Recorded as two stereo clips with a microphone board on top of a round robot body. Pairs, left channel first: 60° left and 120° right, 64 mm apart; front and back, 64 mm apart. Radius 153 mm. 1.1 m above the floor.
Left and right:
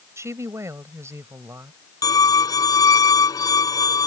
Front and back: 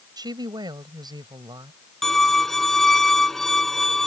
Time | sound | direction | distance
0.2 | a woman speaking | 165° right | ?
2.0 | a violin | 85° left | ?